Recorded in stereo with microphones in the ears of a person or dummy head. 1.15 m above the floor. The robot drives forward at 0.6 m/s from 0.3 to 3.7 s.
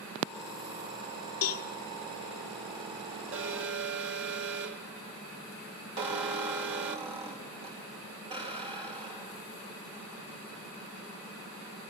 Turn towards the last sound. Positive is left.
turn(degrees=-35)  # may be behind; listen again after turning